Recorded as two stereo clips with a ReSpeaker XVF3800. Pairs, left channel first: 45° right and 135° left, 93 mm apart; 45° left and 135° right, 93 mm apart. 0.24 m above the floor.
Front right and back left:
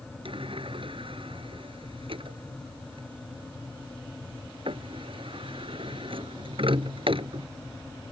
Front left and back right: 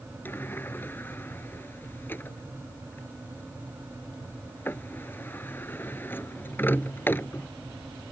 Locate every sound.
0.2 s a sliding door: 115° left